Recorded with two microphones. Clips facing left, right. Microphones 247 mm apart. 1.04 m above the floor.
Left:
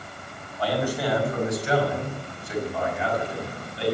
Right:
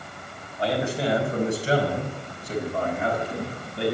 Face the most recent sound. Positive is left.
turn(degrees=-55)  # may be behind; listen again after turning